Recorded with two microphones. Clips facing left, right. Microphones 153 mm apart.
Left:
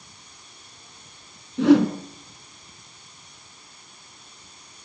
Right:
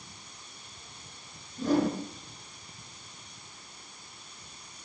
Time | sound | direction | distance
1.6 | a whoosh | 85° left | 2.5 m